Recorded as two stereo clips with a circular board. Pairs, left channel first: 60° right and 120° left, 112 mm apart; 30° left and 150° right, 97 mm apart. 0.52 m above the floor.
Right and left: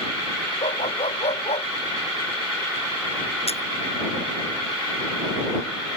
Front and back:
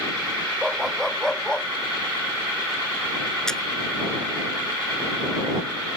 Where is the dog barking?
65° right; by 1.7 s 50° right.